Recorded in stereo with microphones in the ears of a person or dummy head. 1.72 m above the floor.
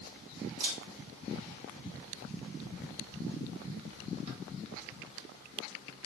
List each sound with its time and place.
0.6 s a camera shutter: 50° right (ahead or behind), 1.3 m